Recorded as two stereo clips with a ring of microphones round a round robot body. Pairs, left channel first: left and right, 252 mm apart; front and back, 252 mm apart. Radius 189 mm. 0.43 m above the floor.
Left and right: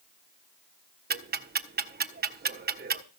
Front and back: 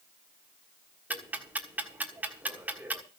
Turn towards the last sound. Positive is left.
turn(degrees=-100)